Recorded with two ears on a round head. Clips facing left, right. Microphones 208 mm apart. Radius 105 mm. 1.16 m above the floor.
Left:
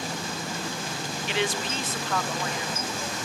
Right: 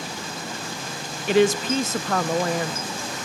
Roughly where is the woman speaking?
Right.